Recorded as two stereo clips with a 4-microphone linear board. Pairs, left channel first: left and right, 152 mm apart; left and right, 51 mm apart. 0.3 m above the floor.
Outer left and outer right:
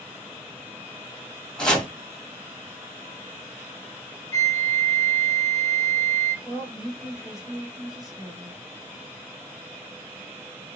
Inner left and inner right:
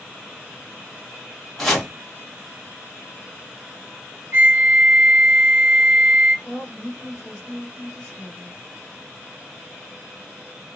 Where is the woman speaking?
5° right (ahead or behind), 1.8 m.